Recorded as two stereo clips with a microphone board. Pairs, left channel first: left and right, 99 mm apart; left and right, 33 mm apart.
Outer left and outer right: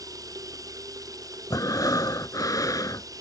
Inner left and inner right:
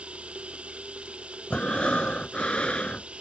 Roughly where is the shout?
No shout in this recording.